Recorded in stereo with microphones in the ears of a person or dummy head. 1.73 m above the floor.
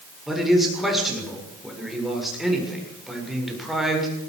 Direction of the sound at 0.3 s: Centre (ahead or behind).